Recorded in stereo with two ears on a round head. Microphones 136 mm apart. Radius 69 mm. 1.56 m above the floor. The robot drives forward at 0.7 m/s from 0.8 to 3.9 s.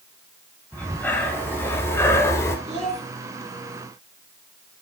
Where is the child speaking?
45° right (ahead or behind), 5.5 m.